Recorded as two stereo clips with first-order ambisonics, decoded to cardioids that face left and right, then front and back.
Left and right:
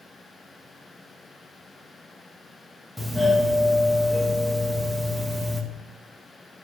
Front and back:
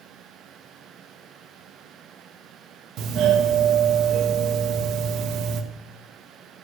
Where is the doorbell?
Straight behind, 0.9 m.